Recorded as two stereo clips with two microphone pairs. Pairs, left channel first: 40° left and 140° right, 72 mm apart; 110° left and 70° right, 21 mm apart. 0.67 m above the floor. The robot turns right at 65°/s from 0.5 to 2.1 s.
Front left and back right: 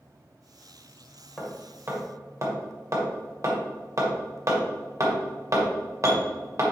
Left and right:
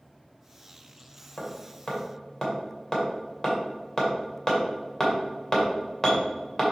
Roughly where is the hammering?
Behind left.